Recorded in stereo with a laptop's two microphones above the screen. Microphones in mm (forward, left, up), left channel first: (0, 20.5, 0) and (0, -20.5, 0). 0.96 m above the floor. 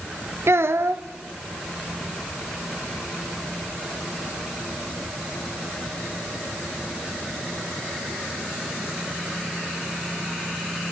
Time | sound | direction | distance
0.5 | a child speaking | 85° right | 0.6 m